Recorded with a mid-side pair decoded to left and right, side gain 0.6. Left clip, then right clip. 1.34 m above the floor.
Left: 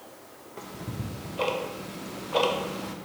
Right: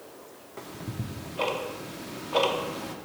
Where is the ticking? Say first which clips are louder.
Left 1 dB; 5° right, 0.5 m.